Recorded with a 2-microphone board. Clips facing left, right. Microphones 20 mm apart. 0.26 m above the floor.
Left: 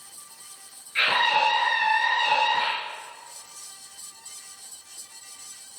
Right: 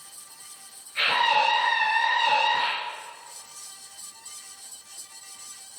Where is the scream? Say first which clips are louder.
Left 1 dB; 60° left (ahead or behind), 5 m.